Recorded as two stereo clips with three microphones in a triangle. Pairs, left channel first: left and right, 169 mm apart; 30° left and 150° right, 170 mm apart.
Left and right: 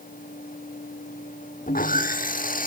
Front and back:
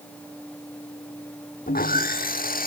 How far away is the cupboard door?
I don't hear a cupboard door.